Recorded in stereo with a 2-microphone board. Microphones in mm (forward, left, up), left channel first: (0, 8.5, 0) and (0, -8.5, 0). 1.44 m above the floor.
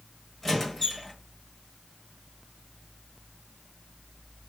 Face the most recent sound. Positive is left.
turn(degrees=30)  # may be behind; listen again after turning